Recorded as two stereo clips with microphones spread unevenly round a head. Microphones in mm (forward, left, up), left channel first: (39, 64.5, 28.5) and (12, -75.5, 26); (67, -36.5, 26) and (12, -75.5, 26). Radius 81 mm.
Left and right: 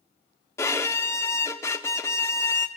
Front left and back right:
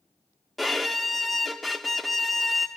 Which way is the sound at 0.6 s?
125° left.